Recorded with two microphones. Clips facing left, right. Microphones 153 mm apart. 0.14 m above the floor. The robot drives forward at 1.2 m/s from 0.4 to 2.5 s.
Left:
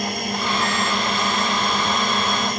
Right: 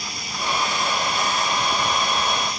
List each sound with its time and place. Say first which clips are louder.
0.0 s a drone: left 6 dB; 55° left (ahead or behind)